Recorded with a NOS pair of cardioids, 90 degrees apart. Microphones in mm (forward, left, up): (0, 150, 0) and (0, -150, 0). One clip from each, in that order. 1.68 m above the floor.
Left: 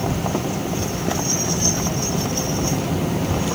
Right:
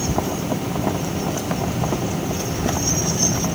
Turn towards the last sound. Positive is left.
No sound to turn to.